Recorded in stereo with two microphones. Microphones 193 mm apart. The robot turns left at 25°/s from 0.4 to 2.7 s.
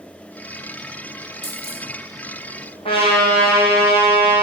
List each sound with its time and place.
1.4 s a dropped coin: 65° left (ahead or behind), 4.5 m; by 1.8 s 55° left (ahead or behind), 4.5 m
2.9 s a trumpet: 25° left (ahead or behind), 5 m